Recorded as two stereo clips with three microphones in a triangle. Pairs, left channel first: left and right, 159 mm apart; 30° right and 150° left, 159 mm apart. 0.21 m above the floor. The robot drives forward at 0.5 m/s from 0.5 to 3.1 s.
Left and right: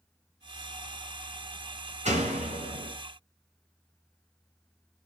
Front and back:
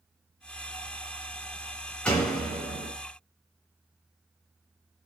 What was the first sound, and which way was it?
A door slam, 110° right.